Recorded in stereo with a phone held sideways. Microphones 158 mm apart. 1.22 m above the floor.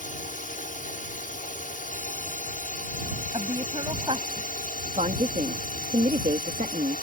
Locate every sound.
0.0 s a drone: 55° left (ahead or behind); by 7.0 s 60° left (ahead or behind)
3.3 s a woman speaking: 35° right (ahead or behind)
5.0 s a woman speaking: 50° right (ahead or behind)